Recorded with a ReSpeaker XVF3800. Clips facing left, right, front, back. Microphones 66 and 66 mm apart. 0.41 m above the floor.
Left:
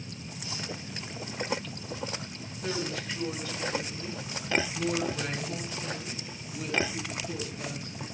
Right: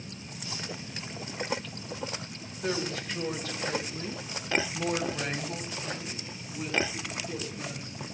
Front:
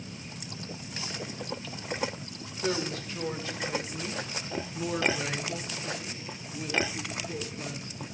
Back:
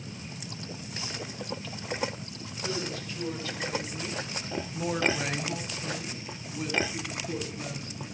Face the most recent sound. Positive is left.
turn(degrees=-165)